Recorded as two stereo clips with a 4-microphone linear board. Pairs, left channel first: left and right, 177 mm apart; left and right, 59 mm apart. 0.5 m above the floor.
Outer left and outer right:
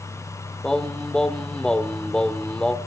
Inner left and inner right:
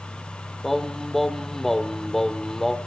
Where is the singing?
5° left (ahead or behind), 1.2 m.